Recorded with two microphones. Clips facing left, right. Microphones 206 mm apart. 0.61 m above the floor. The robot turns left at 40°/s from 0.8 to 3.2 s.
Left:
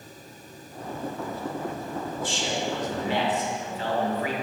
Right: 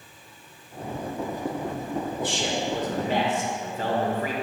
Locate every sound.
2.2 s a man speaking: 85° right, 1.7 m; by 4.3 s 125° right, 1.7 m